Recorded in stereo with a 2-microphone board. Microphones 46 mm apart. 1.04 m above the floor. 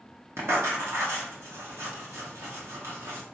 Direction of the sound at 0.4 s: 80° right.